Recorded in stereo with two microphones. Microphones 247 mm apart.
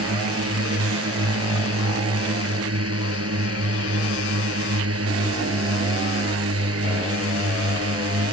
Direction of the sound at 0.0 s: 70° right (ahead or behind).